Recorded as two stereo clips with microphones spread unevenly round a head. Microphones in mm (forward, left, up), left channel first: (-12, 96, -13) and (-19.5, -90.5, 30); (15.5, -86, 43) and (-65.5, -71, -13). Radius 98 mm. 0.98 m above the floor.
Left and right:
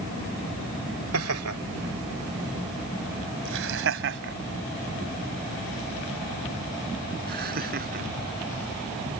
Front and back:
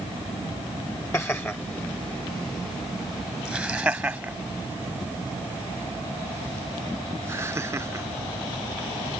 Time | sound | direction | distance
1.1 | laughter | 75° right | ?